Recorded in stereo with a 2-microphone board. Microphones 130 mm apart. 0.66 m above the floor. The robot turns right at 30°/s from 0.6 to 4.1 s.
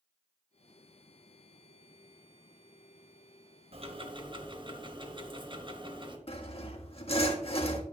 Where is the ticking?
50° right (ahead or behind), 1.2 m; by 6.2 s 35° right (ahead or behind), 1.2 m.